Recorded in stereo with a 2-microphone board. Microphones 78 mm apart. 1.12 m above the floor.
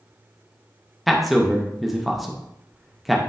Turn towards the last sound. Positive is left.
turn(degrees=0)  # may be behind; listen again after turning